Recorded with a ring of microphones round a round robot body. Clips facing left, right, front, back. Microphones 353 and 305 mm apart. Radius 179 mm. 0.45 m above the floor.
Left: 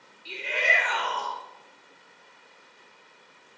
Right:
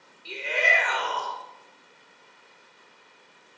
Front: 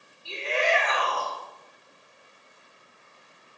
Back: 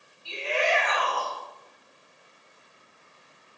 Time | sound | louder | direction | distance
0.2 | a shout | right 2 dB, even | 65° right | 2.5 m